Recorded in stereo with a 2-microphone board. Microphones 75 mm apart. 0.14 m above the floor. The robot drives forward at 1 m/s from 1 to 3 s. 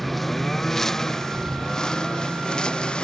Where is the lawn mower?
Centre (ahead or behind); by 3.0 s 15° left (ahead or behind).